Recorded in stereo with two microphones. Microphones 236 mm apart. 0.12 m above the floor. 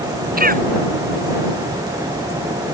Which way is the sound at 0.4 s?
40° right (ahead or behind).